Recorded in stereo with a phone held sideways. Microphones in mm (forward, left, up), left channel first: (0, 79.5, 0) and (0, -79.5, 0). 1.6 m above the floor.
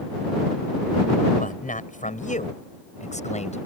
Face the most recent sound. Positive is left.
turn(degrees=45)  # may be behind; listen again after turning